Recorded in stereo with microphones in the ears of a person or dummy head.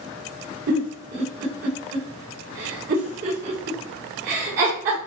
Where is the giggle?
55° right (ahead or behind), 4.5 m.